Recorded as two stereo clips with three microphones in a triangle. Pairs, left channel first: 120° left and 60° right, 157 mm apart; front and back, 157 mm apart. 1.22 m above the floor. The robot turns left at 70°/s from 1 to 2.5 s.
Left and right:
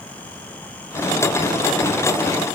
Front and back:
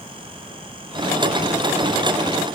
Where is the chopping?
I don't hear chopping.